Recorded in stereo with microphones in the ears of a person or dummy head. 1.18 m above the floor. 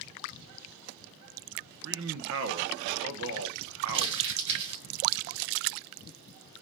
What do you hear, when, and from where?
1.8 s a man speaking: 60° right (ahead or behind), 1.0 m
3.9 s crumpling: 35° right (ahead or behind), 3 m